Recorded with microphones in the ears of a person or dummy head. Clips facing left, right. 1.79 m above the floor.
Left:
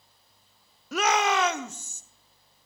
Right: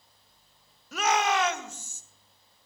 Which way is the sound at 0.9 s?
60° left (ahead or behind).